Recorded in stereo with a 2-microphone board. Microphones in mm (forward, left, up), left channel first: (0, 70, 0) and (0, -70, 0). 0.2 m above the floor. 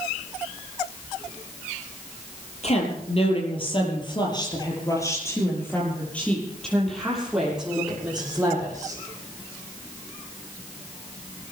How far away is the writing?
No writing in this recording.